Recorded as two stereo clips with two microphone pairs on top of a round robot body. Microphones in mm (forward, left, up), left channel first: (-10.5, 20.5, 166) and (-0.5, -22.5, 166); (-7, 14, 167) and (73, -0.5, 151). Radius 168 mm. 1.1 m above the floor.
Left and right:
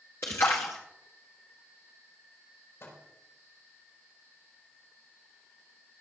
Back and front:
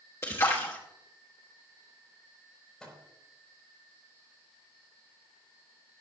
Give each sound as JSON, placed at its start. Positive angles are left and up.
{"t": 0.2, "sound": "a splash", "azimuth_deg": 130, "distance_m": 0.6}
{"t": 2.8, "sound": "a microwave", "azimuth_deg": 85, "distance_m": 4.5}